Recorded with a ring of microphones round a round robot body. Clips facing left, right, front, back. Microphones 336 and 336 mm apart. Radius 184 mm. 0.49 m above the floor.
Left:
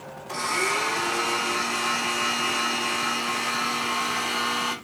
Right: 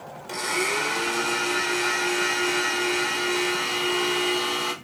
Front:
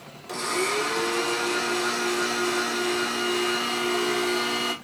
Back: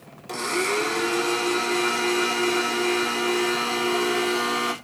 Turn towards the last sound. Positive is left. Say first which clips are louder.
# right 2 dB, back 2 dB
turn(degrees=-110)